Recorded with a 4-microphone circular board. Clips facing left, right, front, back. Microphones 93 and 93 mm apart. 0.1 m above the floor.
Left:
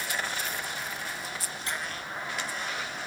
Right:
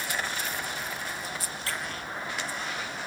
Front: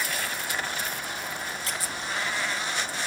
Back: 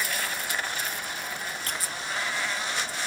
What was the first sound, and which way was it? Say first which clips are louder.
A squeak: even, front 1 dB; 155° left.